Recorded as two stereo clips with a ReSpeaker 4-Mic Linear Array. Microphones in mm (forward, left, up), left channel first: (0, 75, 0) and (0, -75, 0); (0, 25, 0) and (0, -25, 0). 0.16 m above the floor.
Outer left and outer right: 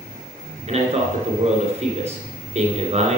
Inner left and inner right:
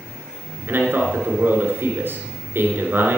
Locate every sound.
0.7 s a man speaking: 45° right (ahead or behind), 2.5 m